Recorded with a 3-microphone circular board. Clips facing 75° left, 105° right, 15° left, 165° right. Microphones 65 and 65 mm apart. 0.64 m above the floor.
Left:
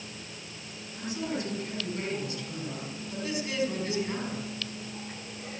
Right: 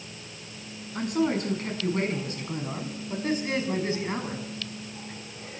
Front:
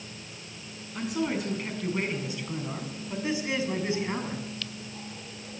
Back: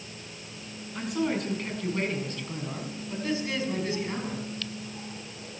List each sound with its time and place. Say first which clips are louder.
0.9 s a man speaking: right 8 dB, back 1 dB; 75° right, 7.5 m; by 4.5 s 45° right, 6.5 m